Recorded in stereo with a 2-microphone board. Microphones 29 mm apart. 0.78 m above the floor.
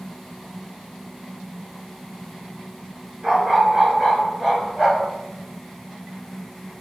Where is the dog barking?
35° right (ahead or behind), 4.5 m.